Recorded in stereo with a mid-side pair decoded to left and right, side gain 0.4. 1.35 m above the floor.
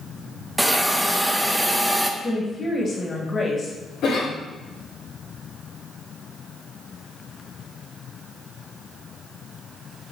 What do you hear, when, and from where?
0.6 s a hiss: 10° right, 0.6 m
2.2 s a woman speaking: 35° left, 1.6 m
4.0 s a cough: 65° left, 2 m